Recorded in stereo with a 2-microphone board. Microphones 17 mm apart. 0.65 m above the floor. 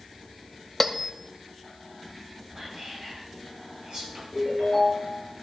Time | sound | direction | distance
0.8 | a bell | 5° left (ahead or behind) | 0.7 m
2.5 | whispering | 60° right (ahead or behind) | 6 m
4.3 | a ringtone | 30° right (ahead or behind) | 6 m